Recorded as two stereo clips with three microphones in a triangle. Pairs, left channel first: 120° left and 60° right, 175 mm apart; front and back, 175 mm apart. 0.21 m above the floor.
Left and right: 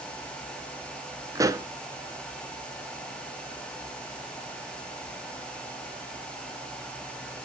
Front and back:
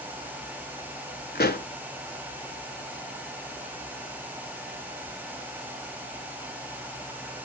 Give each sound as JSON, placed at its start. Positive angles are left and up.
{"t": 1.4, "sound": "a pop", "azimuth_deg": 10, "distance_m": 0.8}